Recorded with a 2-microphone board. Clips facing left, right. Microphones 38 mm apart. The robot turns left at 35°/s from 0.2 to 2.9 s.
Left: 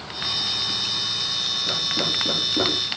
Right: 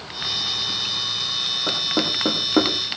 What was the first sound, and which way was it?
Knocking, 55° right (ahead or behind).